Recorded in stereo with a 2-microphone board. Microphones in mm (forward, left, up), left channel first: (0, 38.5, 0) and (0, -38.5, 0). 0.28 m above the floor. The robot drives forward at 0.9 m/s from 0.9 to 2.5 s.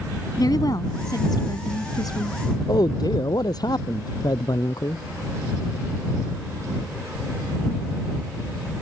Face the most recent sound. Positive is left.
turn(degrees=60)  # may be behind; listen again after turning